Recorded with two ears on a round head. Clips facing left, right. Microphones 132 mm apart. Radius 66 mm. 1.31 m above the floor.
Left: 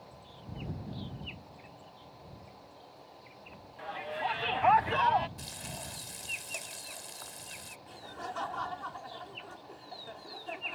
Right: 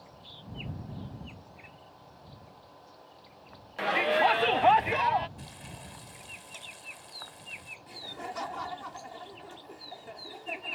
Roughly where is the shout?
Right.